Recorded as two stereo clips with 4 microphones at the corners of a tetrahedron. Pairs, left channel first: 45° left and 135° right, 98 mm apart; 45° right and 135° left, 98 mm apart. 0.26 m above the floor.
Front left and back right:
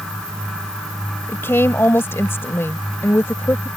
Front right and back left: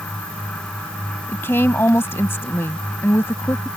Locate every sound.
1.3 s a woman speaking: straight ahead